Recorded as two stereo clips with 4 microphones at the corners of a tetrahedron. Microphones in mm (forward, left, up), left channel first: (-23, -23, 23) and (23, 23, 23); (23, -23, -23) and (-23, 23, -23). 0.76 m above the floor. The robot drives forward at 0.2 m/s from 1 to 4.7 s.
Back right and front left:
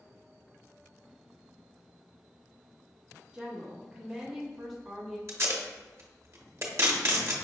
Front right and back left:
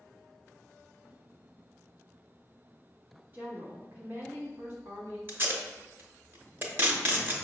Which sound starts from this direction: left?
Tape being pulled, at 5.3 s.